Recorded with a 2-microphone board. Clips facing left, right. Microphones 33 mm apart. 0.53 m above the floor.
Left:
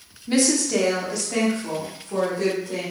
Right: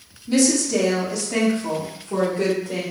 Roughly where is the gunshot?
No gunshot in this recording.